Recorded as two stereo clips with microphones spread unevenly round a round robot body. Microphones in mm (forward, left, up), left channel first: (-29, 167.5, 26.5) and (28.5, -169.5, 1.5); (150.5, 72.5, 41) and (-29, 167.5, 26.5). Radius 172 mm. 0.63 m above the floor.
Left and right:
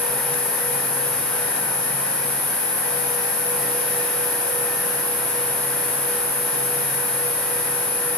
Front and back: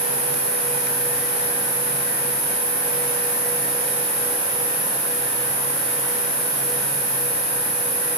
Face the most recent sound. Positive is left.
turn(degrees=175)